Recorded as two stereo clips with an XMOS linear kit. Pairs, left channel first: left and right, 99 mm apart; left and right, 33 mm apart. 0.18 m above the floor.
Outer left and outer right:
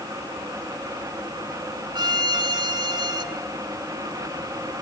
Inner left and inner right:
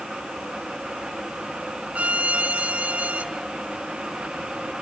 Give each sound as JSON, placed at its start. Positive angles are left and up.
{"t": 1.9, "sound": "a violin", "side_deg": -50, "distance_m": 1.2}